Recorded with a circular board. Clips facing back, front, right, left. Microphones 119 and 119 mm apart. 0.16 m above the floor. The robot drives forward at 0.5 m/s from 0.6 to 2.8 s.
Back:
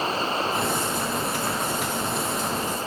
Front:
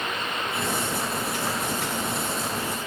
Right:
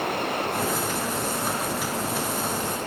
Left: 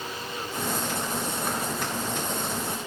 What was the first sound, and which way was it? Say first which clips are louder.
Running water: back 5 dB, right 9 dB; 120° right.